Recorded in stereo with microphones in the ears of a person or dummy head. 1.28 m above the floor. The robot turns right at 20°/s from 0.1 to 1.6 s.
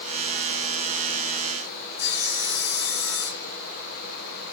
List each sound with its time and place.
2.0 s sawing: 70° left (ahead or behind), 3.5 m